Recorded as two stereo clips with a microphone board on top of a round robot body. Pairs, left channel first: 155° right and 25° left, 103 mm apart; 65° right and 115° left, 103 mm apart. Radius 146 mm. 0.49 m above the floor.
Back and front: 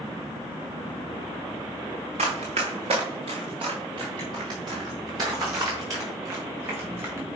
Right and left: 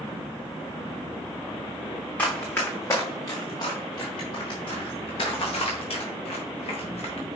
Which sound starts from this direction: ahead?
Running footsteps, at 2.2 s.